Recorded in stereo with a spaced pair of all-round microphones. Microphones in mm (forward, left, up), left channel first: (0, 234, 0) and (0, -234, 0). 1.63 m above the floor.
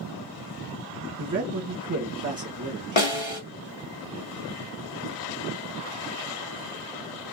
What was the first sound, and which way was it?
A man speaking, 40° right (ahead or behind).